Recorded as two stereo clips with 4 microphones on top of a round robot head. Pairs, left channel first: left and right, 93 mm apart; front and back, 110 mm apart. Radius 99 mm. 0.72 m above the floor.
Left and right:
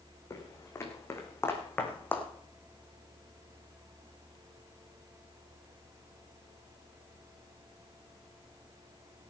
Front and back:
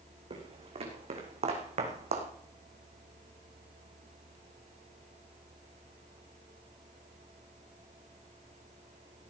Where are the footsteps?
145° left, 4 m; by 2.3 s 160° left, 3 m.